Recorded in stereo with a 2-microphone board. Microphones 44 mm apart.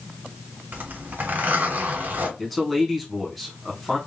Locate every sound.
0.7 s a zipper: 50° right (ahead or behind), 2 m
2.4 s a man speaking: centre (ahead or behind), 2 m